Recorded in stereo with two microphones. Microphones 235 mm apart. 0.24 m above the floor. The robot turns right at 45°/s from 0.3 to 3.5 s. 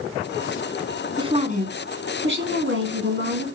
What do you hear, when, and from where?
1.2 s a woman speaking: 155° right, 2.5 m; by 3.5 s 55° right, 2.5 m